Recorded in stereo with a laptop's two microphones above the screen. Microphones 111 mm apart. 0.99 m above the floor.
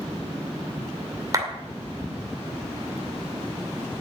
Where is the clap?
30° right (ahead or behind), 2 m.